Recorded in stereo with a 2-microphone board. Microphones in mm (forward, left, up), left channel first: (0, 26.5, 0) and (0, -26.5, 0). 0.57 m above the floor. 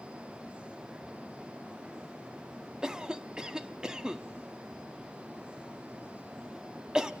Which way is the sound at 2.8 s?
15° right (ahead or behind).